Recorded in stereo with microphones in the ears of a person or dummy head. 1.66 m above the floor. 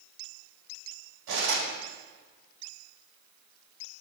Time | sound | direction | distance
1.3 | cutlery clinking | 60° right (ahead or behind) | 1.9 m